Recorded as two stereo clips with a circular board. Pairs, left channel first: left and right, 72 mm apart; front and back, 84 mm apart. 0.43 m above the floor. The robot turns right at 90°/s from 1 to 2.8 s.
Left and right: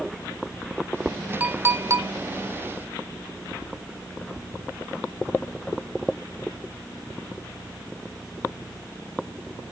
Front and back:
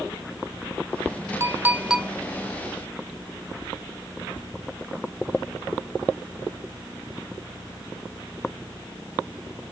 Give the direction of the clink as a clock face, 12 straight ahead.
5 o'clock.